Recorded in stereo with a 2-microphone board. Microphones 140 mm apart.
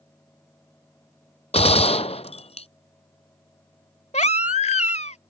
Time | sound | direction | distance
1.5 | a gunshot | 55° left (ahead or behind) | ?
4.1 | a baby crying | 60° left (ahead or behind) | ?